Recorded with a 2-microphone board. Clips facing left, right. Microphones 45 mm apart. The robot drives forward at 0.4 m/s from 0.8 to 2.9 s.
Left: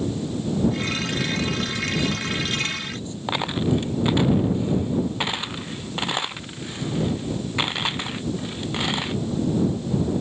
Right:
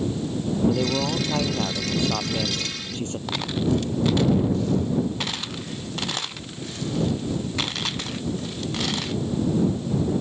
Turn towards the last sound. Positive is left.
turn(degrees=20)  # may be behind; listen again after turning